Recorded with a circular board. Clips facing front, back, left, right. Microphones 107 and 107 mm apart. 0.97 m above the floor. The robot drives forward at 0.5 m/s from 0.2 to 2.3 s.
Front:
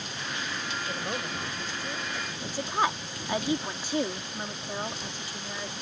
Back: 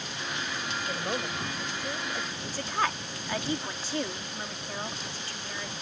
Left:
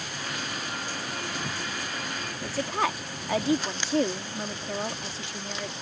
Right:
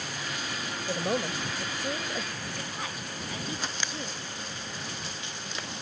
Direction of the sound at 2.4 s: 75° left.